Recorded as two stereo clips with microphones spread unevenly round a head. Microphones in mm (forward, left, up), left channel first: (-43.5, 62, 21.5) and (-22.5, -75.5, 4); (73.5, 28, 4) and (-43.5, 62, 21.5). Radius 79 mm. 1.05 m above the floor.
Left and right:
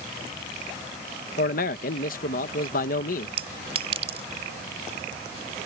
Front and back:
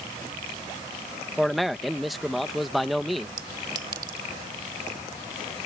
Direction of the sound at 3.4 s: 130° right.